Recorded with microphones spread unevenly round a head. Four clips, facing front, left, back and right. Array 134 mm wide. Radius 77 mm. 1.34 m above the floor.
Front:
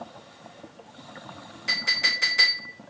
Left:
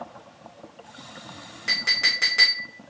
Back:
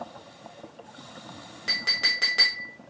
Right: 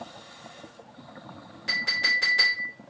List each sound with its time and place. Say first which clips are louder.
1.7 s a clink: even, front 2 dB; 155° left, 1.0 m